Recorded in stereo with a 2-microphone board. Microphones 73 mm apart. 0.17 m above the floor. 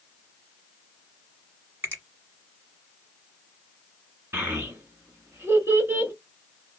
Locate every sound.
1.8 s a finger snap: 35° right (ahead or behind), 1.3 m
4.3 s a child speaking: 35° right (ahead or behind), 1.2 m